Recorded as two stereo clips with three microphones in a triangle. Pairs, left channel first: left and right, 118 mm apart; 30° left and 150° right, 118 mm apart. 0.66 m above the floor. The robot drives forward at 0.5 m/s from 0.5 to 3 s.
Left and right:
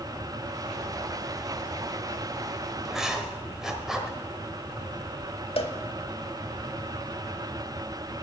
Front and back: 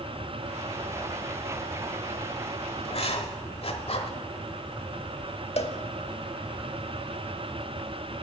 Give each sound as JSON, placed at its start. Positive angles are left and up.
{"t": 2.9, "sound": "writing", "azimuth_deg": -5, "distance_m": 1.3}
{"t": 5.6, "sound": "a cowbell", "azimuth_deg": 55, "distance_m": 0.8}